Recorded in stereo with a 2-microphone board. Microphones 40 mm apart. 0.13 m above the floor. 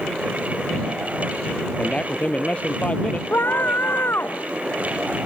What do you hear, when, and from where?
1.8 s a man speaking: 30° left (ahead or behind); by 3.2 s 35° left (ahead or behind)
3.3 s a scream: 60° left (ahead or behind)